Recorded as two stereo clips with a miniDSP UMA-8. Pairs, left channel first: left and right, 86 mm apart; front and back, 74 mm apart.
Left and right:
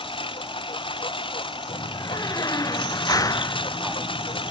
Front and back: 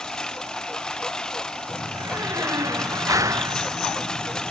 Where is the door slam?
135° left.